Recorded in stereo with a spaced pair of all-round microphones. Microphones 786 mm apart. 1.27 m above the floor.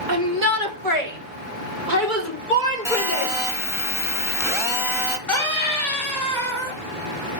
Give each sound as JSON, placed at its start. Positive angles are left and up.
{"t": 0.1, "sound": "a shout", "side_deg": -70, "distance_m": 1.7}
{"t": 2.9, "sound": "a phone buzzing", "side_deg": -5, "distance_m": 1.0}
{"t": 5.3, "sound": "a scream", "side_deg": 55, "distance_m": 3.0}